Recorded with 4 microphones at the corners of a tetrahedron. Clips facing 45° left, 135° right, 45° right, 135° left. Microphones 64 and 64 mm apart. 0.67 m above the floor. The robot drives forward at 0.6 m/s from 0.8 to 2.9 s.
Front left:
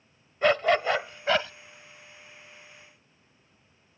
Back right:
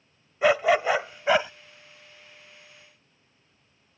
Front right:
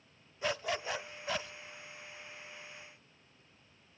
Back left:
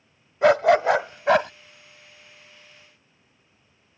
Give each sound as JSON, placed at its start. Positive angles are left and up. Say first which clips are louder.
{"t": 0.4, "sound": "a dog barking", "louder": "back right 2 dB, back left 19 dB", "azimuth_deg": 145}